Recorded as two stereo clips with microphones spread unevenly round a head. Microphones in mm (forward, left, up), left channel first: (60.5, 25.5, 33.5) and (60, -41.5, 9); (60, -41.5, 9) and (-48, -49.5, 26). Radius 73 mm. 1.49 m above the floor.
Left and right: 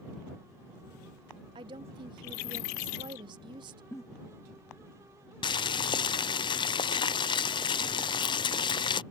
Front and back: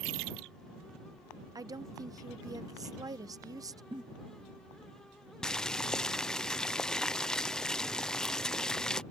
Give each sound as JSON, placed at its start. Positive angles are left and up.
{"t": 1.6, "sound": "a woman speaking", "azimuth_deg": -120}
{"t": 3.9, "sound": "a giggle", "azimuth_deg": 135}
{"t": 5.4, "sound": "boiling", "azimuth_deg": 85}